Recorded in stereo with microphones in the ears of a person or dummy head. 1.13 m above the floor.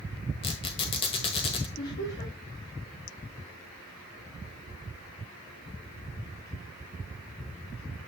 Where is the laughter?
55° left (ahead or behind), 2.5 m.